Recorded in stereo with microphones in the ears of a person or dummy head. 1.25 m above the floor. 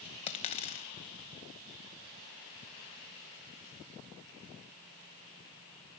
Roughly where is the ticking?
I don't hear ticking.